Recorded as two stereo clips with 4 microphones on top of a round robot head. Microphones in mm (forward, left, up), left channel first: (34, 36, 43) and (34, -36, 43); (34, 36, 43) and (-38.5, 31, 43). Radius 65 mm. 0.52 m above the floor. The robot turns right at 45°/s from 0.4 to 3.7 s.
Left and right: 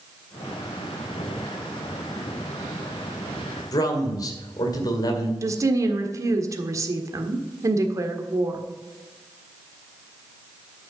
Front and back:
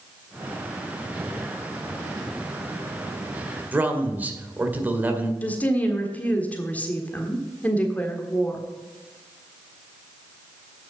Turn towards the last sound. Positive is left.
turn(degrees=-65)